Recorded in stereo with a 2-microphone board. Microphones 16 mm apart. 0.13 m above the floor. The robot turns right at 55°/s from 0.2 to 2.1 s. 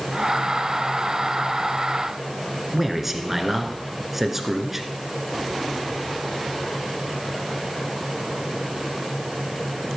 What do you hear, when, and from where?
2.7 s a man speaking: 15° right (ahead or behind), 1.7 m